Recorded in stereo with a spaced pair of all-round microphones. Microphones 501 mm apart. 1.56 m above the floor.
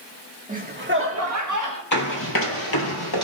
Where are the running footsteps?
35° left (ahead or behind), 2.5 m; by 3.2 s 50° left (ahead or behind), 2.5 m.